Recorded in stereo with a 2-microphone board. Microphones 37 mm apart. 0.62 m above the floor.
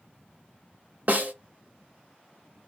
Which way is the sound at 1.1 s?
50° right (ahead or behind).